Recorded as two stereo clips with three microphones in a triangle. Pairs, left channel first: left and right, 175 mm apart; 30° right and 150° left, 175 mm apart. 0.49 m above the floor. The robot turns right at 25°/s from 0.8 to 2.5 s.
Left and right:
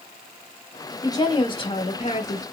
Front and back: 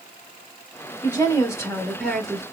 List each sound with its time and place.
1.0 s a woman speaking: 25° left, 1.1 m; by 2.4 s 60° left, 1.1 m